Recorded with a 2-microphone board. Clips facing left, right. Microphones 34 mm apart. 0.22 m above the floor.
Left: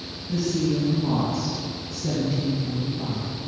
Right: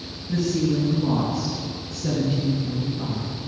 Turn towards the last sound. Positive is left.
turn(degrees=-40)  # may be behind; listen again after turning